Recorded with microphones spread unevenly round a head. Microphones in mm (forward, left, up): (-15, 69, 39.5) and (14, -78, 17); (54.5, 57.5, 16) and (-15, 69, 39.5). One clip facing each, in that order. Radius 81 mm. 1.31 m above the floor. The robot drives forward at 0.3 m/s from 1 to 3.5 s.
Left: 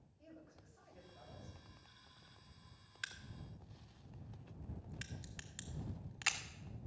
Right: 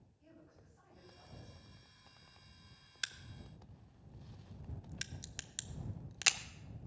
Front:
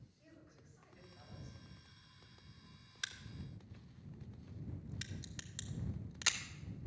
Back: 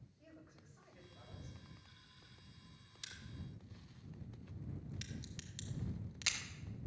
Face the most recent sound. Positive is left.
turn(degrees=-85)